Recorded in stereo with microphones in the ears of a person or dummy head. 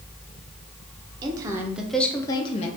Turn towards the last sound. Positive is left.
turn(degrees=40)  # may be behind; listen again after turning